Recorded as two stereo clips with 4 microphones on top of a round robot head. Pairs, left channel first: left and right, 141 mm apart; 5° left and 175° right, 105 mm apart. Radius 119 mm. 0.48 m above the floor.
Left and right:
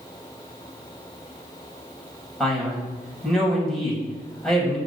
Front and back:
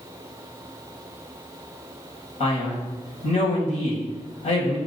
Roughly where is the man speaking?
Ahead.